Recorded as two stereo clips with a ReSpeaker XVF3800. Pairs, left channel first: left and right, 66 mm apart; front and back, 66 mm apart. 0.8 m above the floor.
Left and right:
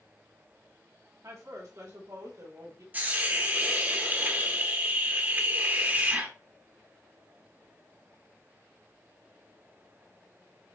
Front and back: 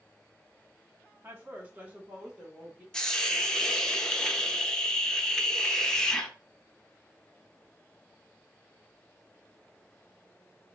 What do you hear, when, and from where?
1.2 s a woman speaking: 120° right, 1.1 m; by 2.8 s 105° right, 3 m
2.9 s a hiss: 70° right, 0.7 m